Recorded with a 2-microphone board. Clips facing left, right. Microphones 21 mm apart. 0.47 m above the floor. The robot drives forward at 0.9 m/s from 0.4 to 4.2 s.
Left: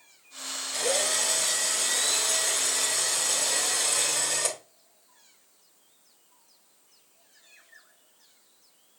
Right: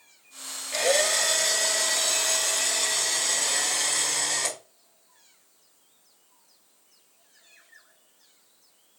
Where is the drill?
50° right (ahead or behind), 2.5 m; by 4.6 s 25° right (ahead or behind), 5 m.